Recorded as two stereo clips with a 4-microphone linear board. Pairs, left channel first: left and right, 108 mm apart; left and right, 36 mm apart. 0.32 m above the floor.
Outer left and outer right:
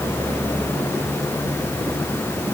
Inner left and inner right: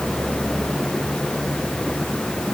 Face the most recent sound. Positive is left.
No sound to turn to.